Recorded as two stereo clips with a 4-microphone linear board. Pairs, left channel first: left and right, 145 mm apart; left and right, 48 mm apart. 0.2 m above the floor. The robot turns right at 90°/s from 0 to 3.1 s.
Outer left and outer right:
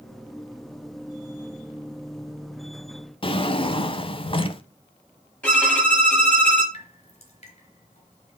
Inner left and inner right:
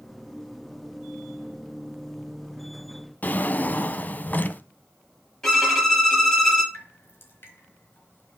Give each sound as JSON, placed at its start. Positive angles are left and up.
{"t": 3.2, "sound": "a drawer", "side_deg": 40, "distance_m": 0.6}
{"t": 5.4, "sound": "a violin", "side_deg": 10, "distance_m": 4.5}
{"t": 6.7, "sound": "dripping", "side_deg": 50, "distance_m": 2.5}